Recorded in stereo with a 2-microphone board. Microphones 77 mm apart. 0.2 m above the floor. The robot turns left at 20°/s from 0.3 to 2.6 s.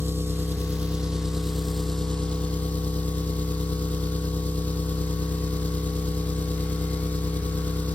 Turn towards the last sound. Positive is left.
turn(degrees=160)